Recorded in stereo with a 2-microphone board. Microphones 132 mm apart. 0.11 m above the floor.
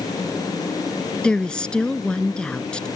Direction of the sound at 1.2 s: 5° left (ahead or behind).